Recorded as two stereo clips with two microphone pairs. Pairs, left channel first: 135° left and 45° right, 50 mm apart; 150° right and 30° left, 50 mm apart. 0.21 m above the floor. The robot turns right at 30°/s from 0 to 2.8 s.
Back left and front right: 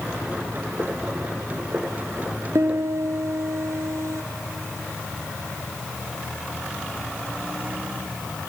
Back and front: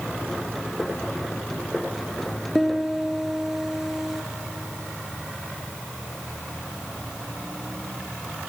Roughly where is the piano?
Ahead right.